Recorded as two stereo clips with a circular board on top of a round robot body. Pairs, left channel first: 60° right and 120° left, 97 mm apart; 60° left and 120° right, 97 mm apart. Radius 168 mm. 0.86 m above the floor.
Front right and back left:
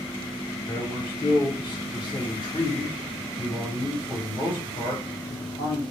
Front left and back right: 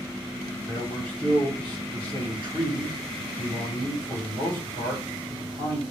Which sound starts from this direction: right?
A man speaking, at 0.6 s.